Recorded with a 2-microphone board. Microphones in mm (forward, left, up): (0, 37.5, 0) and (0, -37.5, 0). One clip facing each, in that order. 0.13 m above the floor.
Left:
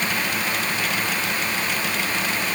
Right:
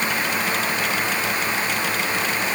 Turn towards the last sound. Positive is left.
No sound to turn to.